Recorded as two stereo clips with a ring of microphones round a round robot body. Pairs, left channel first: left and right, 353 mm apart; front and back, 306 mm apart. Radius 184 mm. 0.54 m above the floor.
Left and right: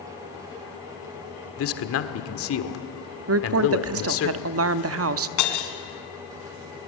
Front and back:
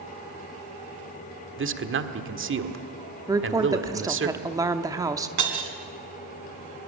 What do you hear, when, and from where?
1.6 s a man speaking: 135° left, 1.6 m
3.3 s a woman speaking: 105° right, 0.8 m
5.4 s breaking glass: 135° left, 2.5 m